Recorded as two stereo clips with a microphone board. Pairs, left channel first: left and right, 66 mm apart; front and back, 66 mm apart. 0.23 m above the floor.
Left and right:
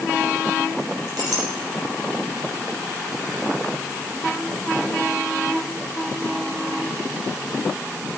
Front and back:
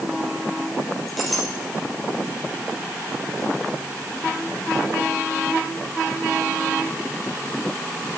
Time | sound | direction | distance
1.1 | a clink | 90° right | 4 m